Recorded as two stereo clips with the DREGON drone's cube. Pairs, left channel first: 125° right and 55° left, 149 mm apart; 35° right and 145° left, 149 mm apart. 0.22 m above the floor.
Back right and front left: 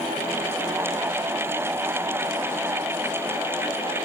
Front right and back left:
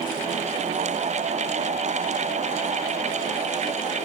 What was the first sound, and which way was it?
Only background noise.